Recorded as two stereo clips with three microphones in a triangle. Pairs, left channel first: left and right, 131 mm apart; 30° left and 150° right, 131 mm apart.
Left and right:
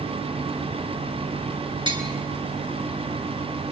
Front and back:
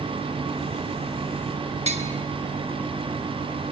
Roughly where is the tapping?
Behind right.